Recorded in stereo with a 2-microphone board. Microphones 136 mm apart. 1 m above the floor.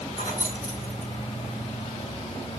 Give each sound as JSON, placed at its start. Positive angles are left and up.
{"t": 0.2, "sound": "keys jangling", "side_deg": 80, "distance_m": 5.5}